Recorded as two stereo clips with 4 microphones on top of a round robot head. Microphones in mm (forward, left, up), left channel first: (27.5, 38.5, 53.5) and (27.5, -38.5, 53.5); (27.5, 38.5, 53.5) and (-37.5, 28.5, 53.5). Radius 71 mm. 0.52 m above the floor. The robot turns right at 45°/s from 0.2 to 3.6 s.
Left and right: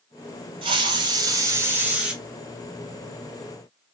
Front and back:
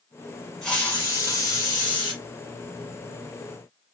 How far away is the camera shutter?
I don't hear a camera shutter.